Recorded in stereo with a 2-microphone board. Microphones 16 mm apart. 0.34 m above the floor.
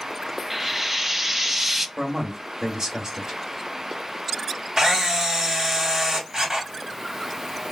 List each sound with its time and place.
0.5 s frying: 20° right (ahead or behind), 0.6 m
2.0 s a man speaking: 55° right (ahead or behind), 1.9 m
4.8 s a camera shutter: 55° right (ahead or behind), 2.5 m